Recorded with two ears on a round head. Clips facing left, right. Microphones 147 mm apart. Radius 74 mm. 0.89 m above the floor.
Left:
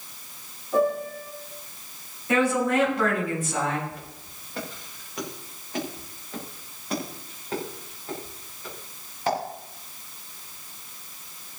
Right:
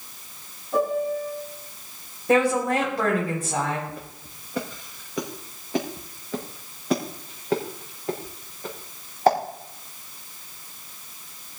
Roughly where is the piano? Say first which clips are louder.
Even; centre.